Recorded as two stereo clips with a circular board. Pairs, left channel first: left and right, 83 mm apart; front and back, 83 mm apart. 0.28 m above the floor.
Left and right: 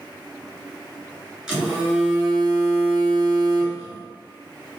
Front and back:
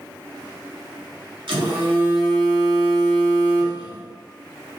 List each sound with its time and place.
1.5 s a phone buzzing: 170° right, 1.9 m